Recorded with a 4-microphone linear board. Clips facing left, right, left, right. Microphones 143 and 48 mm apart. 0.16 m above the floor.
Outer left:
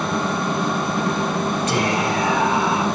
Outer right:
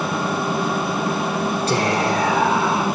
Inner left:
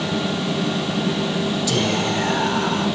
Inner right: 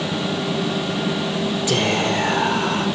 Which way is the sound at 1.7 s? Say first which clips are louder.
Outer right 3 dB, inner right 3 dB; 30° right (ahead or behind).